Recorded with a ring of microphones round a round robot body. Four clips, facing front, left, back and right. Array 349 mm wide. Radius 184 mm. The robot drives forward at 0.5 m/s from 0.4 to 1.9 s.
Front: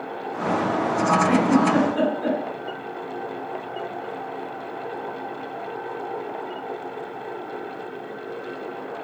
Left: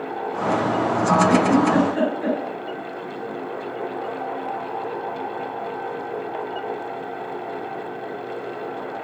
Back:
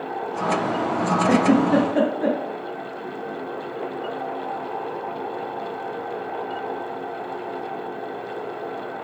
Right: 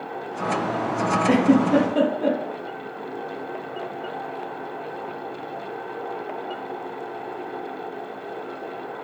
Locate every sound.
1.3 s a giggle: 160° right, 1.7 m; by 2.4 s 165° right, 2.0 m